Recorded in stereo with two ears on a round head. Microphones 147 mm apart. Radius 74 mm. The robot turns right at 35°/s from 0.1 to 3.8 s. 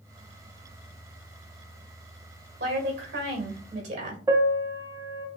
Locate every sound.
2.6 s a woman speaking: 90° right, 1.9 m; by 4.2 s 45° right, 1.9 m
4.3 s a piano: 15° right (ahead or behind), 0.5 m